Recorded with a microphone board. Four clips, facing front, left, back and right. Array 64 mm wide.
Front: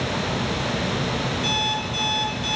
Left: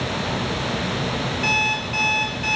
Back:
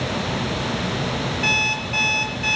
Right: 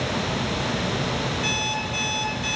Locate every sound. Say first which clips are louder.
1.4 s an alarm clock: left 4 dB, back 2 dB; 170° left, 4.5 m